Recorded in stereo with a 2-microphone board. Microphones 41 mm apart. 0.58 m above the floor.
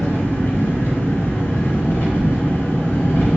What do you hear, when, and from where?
0.0 s an engine running: 75° left (ahead or behind), 1.3 m